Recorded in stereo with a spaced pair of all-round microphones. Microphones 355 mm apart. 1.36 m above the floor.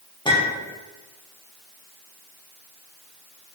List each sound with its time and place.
0.2 s a clink: 15° left (ahead or behind), 0.5 m